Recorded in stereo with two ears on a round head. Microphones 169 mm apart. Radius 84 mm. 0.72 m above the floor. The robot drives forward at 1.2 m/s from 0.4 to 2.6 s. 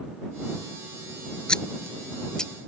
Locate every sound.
1.5 s scissors: 5° left (ahead or behind)